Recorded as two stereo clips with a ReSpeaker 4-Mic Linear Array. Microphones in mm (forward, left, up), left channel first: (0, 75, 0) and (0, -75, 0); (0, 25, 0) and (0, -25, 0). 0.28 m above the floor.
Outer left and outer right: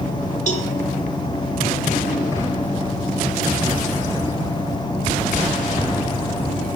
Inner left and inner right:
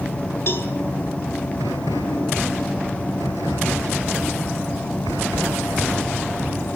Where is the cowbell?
50° left (ahead or behind), 1.1 m.